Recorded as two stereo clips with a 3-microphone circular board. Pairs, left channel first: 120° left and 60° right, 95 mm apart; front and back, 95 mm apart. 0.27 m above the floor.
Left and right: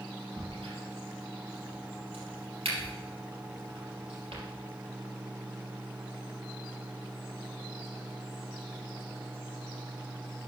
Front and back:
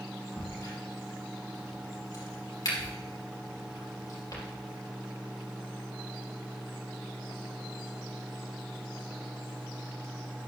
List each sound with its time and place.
0.4 s a crack: 45° right, 3 m